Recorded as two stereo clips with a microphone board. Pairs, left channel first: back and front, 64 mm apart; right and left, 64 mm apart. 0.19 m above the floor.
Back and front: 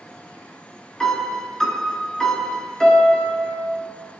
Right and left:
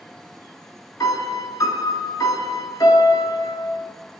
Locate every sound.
1.0 s a piano: 95° right, 0.5 m